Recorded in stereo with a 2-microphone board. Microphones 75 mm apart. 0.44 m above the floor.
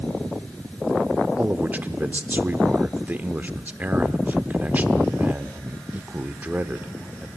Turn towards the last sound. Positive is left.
turn(degrees=-25)  # may be behind; listen again after turning